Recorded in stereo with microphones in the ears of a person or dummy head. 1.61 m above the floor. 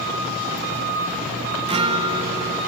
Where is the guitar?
25° right (ahead or behind), 0.9 m.